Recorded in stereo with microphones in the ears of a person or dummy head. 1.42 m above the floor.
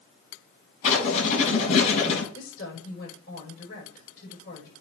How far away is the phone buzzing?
I don't hear a phone buzzing.